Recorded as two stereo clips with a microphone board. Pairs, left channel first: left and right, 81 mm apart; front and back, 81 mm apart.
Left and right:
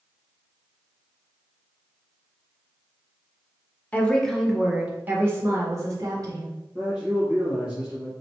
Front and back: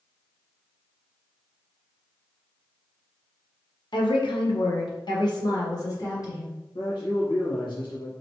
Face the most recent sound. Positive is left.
turn(degrees=-15)